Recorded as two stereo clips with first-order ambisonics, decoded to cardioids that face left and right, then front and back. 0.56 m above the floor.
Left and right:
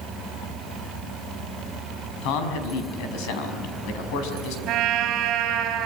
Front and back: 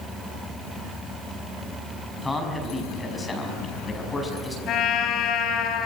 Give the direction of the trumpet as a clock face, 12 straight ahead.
2 o'clock.